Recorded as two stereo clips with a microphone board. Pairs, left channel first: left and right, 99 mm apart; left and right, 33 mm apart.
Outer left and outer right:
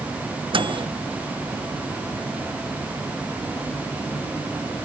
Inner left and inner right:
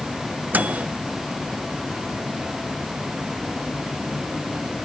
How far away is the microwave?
About 0.8 m.